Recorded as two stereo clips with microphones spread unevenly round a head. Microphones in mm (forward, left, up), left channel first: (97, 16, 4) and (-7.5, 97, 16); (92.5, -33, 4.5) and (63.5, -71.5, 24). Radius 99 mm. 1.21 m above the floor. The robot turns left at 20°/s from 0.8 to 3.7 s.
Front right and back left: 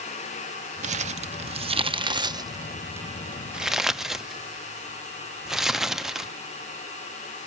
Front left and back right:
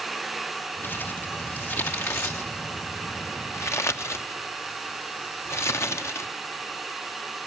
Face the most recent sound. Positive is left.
turn(degrees=55)